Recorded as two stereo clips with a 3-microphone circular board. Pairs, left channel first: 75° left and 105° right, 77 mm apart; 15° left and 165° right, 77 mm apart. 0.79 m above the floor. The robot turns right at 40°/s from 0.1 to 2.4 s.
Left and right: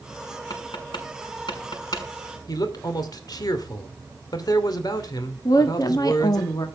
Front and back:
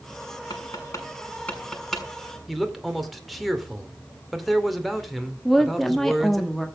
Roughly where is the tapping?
Ahead left.